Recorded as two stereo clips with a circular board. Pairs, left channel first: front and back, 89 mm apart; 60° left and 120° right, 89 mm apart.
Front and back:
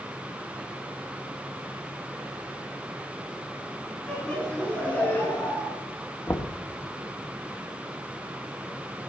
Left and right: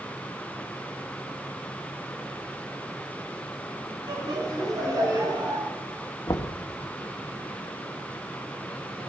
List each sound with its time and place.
4.1 s laughter: 75° right, 5 m; by 5.7 s 65° right, 5.5 m
6.3 s knocking: 40° left, 1.1 m